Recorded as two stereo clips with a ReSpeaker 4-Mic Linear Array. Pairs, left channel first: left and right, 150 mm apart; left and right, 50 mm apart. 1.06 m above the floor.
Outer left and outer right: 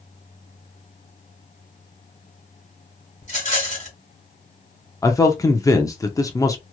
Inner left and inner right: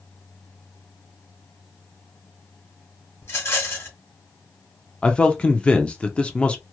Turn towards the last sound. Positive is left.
turn(degrees=20)  # may be behind; listen again after turning